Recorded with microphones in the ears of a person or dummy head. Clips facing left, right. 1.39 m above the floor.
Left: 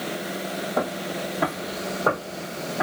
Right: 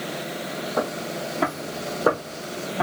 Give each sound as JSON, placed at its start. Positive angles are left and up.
{"t": 0.8, "sound": "footsteps", "side_deg": 10, "distance_m": 1.8}